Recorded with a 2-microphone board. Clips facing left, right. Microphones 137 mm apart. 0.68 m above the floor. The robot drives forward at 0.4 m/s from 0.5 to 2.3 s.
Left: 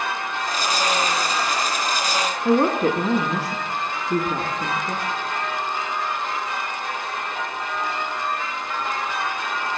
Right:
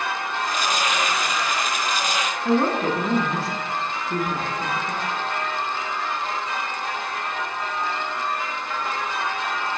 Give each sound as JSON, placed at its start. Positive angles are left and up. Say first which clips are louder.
{"t": 2.5, "sound": "a woman speaking", "louder": "left 2 dB", "side_deg": 25, "distance_m": 1.0}